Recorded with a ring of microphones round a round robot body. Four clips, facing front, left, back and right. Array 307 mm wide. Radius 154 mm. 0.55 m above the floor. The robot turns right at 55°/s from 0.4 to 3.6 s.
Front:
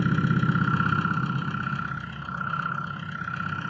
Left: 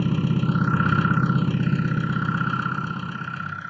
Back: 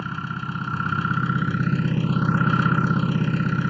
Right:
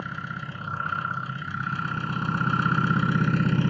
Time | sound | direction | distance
0.0 | an engine running | 60° left | ?